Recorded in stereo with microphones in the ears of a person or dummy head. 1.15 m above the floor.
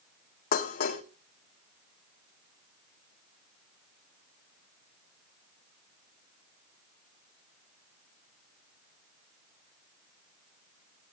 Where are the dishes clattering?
45° left (ahead or behind), 1.7 m.